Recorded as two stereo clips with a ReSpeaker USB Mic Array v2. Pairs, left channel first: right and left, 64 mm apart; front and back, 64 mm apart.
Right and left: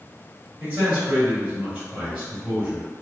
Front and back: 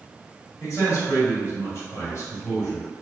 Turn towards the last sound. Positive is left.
turn(degrees=30)